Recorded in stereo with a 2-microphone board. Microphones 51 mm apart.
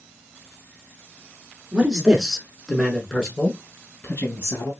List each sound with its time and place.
1.7 s a man speaking: 20° right (ahead or behind), 1.3 m; by 4.7 s 45° left (ahead or behind), 1.7 m